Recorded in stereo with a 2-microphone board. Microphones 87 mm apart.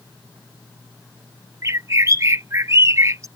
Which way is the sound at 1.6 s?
35° right (ahead or behind).